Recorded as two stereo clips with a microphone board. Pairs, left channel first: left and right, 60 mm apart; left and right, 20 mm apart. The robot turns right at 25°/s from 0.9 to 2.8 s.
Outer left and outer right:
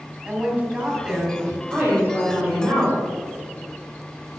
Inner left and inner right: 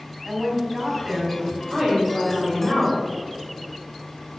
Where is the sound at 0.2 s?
20° right (ahead or behind), 3 m; by 1.6 s centre (ahead or behind), 3 m.